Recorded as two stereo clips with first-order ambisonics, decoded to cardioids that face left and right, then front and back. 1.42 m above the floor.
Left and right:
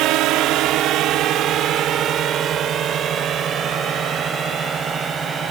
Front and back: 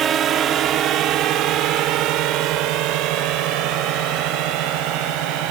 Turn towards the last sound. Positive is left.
turn(degrees=-160)